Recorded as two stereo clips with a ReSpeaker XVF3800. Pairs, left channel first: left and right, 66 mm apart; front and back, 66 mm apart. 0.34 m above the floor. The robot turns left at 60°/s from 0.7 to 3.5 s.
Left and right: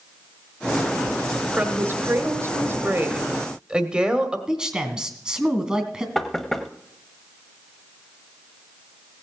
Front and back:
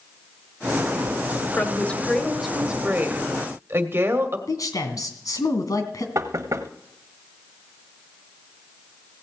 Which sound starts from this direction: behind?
Knocking, at 6.2 s.